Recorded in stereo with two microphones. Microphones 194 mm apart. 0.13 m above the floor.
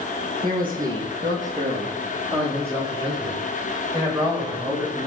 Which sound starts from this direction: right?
A man speaking, at 0.4 s.